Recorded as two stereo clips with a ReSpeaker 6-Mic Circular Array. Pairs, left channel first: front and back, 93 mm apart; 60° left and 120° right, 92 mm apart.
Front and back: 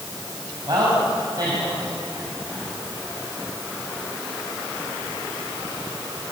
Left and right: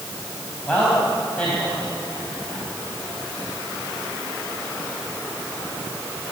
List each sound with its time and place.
0.7 s a man speaking: 135° left, 5 m